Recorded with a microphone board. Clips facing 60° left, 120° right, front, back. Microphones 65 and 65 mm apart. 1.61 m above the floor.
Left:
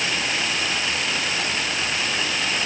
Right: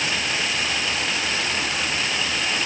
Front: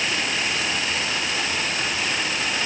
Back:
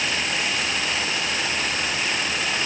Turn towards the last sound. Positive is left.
No sound to turn to.